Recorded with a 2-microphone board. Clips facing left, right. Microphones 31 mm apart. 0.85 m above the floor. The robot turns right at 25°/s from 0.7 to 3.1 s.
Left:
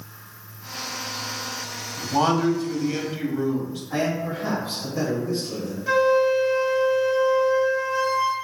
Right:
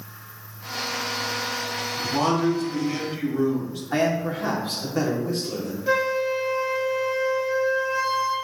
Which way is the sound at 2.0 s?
20° left (ahead or behind).